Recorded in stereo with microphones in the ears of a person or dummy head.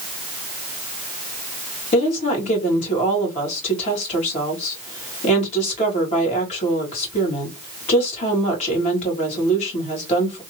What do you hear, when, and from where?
1.9 s a woman speaking: 40° left (ahead or behind), 2.0 m